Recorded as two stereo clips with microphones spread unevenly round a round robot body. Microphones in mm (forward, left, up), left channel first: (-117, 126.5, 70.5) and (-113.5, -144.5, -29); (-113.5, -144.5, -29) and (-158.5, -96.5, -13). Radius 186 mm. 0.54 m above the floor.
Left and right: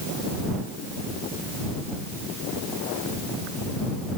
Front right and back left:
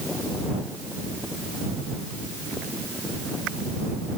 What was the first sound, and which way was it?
Only background noise.